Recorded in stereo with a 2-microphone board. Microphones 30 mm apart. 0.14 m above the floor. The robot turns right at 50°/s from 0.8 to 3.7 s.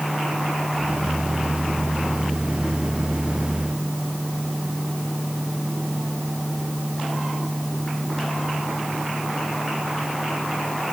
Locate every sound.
Only background noise.